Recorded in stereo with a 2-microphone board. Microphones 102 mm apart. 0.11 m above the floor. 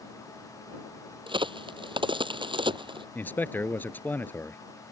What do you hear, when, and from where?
1.3 s a crack: 55° right (ahead or behind)
3.1 s a man speaking: 20° left (ahead or behind)